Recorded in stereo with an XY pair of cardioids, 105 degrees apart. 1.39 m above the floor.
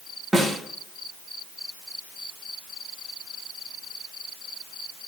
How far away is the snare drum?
About 1.7 m.